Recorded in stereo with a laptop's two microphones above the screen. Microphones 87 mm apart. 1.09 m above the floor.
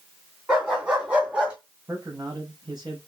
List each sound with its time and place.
0.5 s a dog barking: 15° right (ahead or behind), 3 m
1.9 s a man speaking: 45° right (ahead or behind), 3.5 m